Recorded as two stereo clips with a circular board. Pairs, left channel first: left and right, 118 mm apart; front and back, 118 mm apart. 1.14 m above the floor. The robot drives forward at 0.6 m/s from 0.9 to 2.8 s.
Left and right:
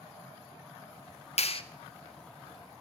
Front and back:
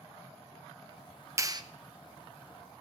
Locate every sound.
1.4 s a clap: 115° left, 0.5 m; by 1.6 s 125° left, 0.6 m